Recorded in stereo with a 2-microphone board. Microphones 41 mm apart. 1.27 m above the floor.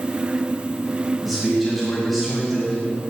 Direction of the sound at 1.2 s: 10° left (ahead or behind).